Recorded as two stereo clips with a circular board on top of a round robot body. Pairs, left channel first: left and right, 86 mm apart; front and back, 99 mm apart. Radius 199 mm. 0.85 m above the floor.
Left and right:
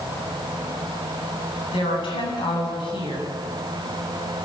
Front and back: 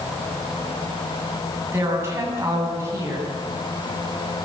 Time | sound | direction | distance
1.7 | a woman speaking | 115° left | 9.5 m